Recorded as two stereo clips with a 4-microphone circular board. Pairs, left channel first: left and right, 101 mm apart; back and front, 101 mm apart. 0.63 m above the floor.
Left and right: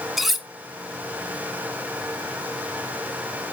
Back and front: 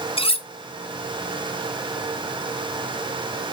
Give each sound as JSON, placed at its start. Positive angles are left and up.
{"t": 0.2, "sound": "cutlery clinking", "azimuth_deg": 180, "distance_m": 0.7}